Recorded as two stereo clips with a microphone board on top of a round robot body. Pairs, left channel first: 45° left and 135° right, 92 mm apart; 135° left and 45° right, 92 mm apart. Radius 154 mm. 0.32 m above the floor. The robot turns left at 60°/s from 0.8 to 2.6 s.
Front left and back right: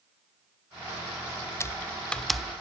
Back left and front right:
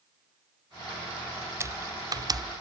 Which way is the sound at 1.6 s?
Straight ahead.